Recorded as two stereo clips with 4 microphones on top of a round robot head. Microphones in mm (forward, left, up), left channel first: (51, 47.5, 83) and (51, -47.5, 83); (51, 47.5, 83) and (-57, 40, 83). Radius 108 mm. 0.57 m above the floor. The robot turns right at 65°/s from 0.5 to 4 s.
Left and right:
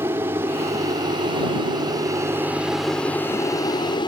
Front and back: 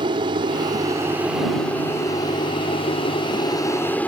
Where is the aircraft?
150° right; by 4.1 s 75° left.